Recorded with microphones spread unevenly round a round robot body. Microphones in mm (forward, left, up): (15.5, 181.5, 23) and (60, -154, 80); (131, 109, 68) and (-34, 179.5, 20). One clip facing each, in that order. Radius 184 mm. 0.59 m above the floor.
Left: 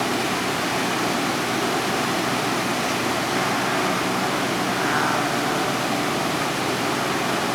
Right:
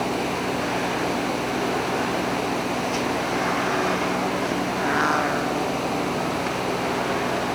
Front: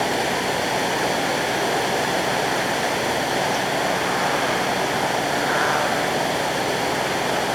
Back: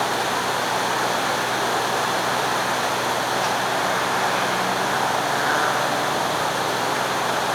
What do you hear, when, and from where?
0.0 s running water: 45° left